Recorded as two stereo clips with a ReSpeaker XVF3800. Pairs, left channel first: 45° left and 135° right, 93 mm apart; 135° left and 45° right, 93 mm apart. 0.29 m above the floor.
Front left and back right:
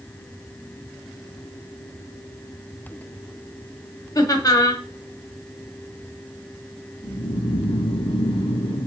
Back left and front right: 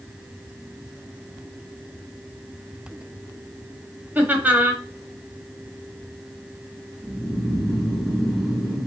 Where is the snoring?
45° left, 1.1 m.